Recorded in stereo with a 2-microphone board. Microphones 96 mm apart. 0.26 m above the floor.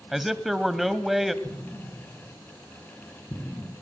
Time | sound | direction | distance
0.1 | a man speaking | centre (ahead or behind) | 1.3 m
1.4 | an explosion | 25° left (ahead or behind) | 6 m